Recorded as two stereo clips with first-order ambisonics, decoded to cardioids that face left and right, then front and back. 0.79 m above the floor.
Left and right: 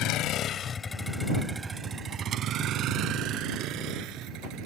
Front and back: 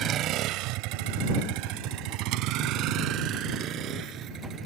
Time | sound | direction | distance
0.0 | a vehicle | 125° left | ?